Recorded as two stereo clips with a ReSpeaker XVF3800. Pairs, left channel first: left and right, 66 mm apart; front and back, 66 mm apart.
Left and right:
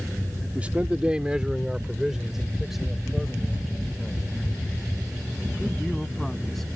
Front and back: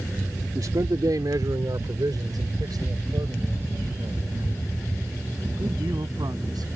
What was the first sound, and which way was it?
A man speaking, 155° right.